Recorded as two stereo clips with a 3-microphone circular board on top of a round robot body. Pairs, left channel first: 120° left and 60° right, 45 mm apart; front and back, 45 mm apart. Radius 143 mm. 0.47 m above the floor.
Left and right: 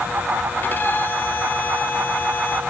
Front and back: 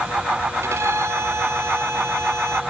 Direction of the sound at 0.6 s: 165° left.